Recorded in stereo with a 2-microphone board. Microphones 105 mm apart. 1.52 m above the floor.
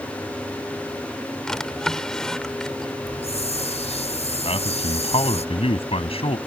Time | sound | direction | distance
1.5 | a drawer | 5° left (ahead or behind) | ?
3.0 | a hiss | 85° left | ?
4.5 | a man speaking | 65° left (ahead or behind) | ?